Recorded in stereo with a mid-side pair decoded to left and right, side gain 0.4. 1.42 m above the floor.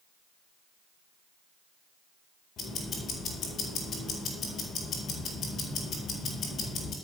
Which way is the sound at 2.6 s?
65° left.